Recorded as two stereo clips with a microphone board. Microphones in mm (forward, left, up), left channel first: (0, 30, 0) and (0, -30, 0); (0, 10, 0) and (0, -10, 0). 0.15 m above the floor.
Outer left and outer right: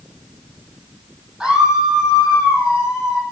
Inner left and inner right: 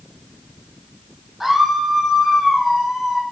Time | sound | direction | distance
1.4 | a scream | 20° right (ahead or behind) | 6.5 m